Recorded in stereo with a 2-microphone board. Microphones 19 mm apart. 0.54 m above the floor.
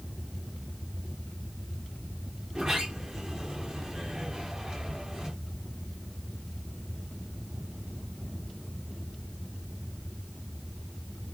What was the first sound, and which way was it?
A sliding door, 35° right (ahead or behind).